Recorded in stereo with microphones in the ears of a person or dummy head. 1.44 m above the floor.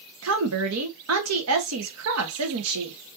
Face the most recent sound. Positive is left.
turn(degrees=-90)